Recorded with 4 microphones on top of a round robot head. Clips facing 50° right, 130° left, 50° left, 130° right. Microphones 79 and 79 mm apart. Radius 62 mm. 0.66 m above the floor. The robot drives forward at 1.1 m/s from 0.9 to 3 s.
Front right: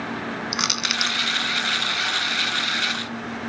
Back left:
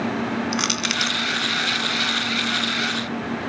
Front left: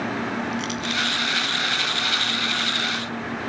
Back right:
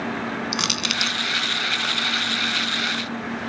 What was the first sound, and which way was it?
Crushing, 135° right.